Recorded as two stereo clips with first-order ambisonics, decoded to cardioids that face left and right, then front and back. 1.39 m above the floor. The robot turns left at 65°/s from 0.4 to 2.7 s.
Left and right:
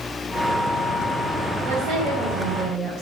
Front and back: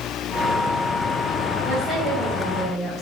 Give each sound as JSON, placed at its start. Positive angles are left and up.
{"t": 1.6, "sound": "a woman speaking", "azimuth_deg": -65, "distance_m": 4.5}